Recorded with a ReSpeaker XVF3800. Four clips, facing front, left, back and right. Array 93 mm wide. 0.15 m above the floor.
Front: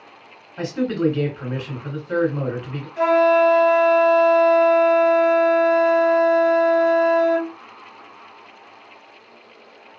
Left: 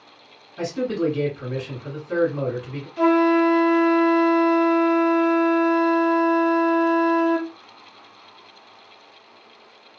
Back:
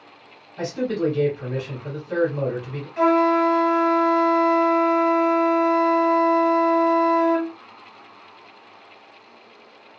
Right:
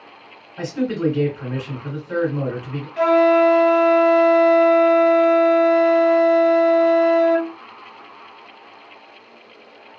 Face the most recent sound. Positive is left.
turn(degrees=-120)